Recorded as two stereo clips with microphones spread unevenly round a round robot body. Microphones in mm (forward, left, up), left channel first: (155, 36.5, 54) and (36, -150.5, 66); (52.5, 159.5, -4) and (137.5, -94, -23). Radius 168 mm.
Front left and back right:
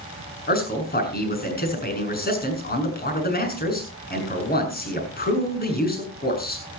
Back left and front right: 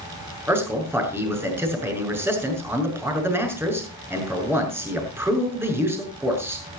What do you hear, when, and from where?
0.5 s a man speaking: 10° left, 6.5 m